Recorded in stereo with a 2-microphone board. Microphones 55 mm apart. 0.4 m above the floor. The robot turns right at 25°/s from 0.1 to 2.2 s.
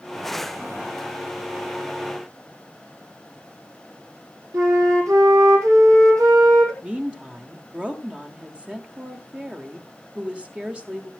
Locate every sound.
4.5 s a flute: 90° right, 3.5 m
6.8 s a woman speaking: 20° right (ahead or behind), 1.4 m